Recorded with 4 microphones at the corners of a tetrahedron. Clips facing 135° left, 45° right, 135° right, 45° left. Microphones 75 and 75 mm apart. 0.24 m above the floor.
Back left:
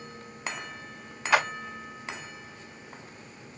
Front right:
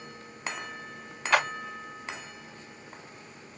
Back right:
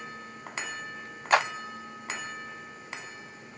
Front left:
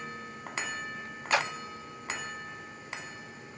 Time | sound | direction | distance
1.3 | a clap | 145° right | 1.7 m